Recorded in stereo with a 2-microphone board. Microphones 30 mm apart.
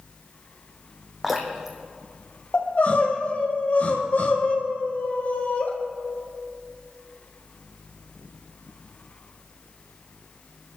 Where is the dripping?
5° right (ahead or behind), 2.5 m.